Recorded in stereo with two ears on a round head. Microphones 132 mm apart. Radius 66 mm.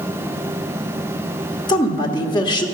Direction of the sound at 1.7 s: 30° left (ahead or behind).